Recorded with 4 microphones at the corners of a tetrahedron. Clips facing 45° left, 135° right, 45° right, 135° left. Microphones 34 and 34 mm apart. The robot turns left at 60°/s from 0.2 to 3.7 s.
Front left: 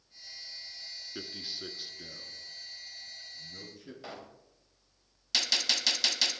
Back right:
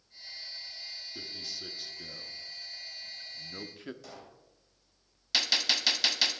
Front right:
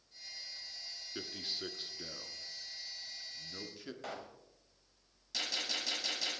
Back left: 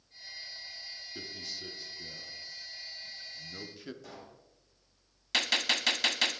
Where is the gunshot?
150° left, 1.1 m.